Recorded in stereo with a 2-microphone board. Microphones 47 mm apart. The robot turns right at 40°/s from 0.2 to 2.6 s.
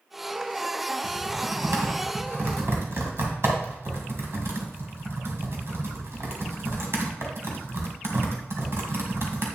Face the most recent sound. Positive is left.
turn(degrees=-65)  # may be behind; listen again after turning